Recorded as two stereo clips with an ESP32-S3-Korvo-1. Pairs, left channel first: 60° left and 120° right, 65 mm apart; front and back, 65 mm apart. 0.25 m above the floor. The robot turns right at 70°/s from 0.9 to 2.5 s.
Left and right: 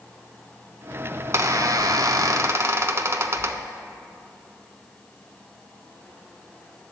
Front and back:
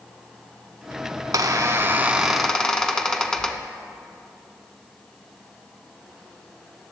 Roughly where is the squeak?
Behind.